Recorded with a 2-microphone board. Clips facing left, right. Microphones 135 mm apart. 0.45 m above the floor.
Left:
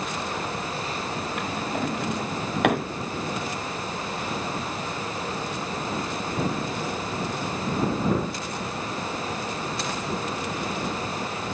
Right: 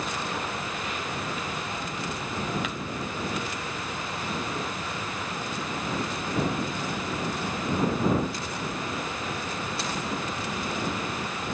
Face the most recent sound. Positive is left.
turn(degrees=65)  # may be behind; listen again after turning